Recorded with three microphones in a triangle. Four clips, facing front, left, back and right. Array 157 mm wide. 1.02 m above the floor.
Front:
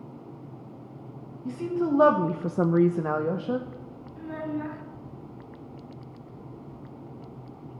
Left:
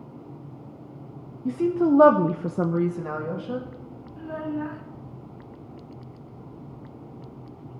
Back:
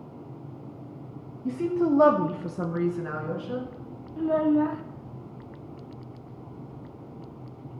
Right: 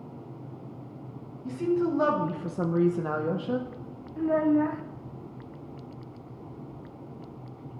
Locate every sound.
1.4 s a woman speaking: 120° left, 1.2 m; by 3.7 s 30° right, 1.4 m
4.2 s a child speaking: 135° right, 0.6 m